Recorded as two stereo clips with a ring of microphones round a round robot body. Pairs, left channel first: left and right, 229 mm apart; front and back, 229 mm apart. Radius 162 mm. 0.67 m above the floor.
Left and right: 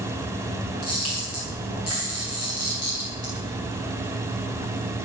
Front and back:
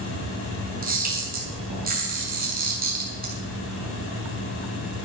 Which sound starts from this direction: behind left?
A camera shutter, at 0.8 s.